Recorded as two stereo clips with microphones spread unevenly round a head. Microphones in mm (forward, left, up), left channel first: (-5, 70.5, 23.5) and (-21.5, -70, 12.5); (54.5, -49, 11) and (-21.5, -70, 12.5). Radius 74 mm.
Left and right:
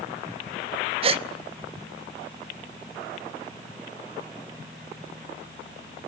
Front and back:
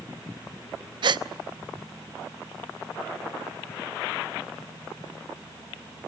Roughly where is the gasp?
Behind right.